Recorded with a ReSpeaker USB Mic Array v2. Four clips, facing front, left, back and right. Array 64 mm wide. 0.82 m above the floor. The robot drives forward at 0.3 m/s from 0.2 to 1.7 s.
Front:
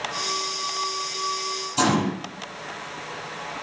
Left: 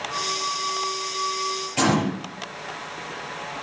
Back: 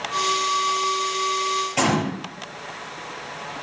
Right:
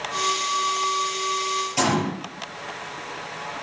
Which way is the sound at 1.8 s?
170° left.